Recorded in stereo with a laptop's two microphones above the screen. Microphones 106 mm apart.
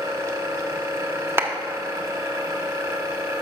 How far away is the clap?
About 0.6 m.